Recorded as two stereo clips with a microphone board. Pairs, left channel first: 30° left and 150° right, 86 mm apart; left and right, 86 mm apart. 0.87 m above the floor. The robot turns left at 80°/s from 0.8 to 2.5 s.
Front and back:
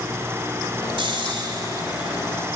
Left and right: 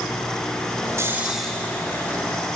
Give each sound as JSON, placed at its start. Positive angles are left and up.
{"t": 1.0, "sound": "snoring", "azimuth_deg": -145, "distance_m": 3.0}